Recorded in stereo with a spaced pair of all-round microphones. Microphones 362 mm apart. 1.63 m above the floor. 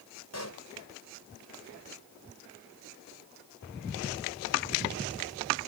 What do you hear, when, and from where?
0.3 s a pop: 45° left (ahead or behind)